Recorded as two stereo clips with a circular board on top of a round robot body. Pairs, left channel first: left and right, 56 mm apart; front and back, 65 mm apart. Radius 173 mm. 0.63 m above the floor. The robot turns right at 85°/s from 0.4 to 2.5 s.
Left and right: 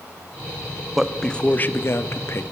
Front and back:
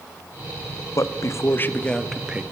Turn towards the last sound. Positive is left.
turn(degrees=125)